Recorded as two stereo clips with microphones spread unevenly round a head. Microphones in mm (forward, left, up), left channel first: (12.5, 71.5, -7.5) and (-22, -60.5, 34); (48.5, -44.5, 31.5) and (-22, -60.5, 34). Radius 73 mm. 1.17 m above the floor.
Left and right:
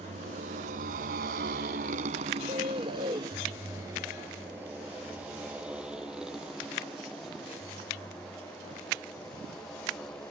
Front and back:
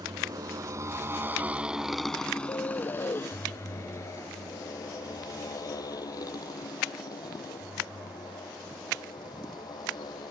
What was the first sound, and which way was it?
A motorcycle, 140° right.